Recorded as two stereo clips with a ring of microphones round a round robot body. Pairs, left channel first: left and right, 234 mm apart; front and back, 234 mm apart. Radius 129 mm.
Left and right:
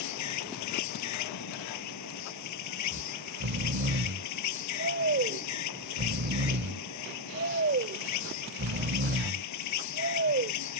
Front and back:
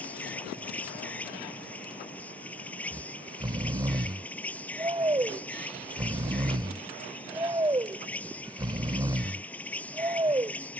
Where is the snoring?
110° right.